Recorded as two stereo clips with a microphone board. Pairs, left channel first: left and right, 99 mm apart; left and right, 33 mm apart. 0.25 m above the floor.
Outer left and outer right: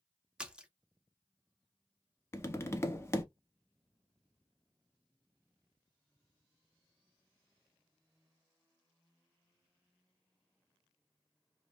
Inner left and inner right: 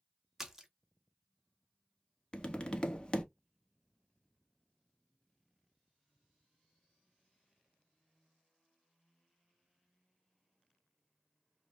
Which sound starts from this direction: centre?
A splash, at 0.4 s.